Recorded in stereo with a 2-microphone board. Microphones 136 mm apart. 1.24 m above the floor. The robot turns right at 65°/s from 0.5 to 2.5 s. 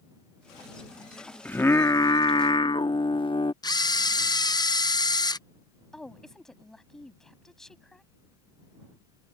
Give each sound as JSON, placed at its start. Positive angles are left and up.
{"t": 1.4, "sound": "singing", "azimuth_deg": 15}
{"t": 3.6, "sound": "a camera shutter", "side_deg": 30}
{"t": 5.9, "sound": "a woman speaking", "side_deg": 5}